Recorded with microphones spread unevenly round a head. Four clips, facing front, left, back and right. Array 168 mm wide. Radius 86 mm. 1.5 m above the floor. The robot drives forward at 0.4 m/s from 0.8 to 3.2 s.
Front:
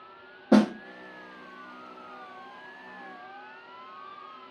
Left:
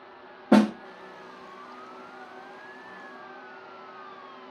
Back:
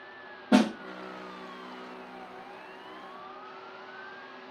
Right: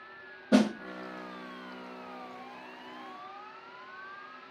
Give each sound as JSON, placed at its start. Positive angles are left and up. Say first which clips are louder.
{"t": 0.5, "sound": "a snare drum", "louder": "left 5 dB, front 2 dB", "azimuth_deg": 60, "distance_m": 0.6}